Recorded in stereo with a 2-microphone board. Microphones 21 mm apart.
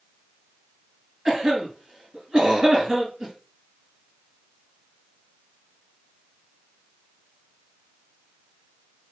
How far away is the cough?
About 2 m.